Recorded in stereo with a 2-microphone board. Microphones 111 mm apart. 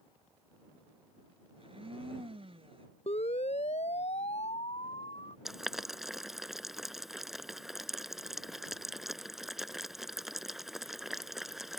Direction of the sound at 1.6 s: 60° right (ahead or behind).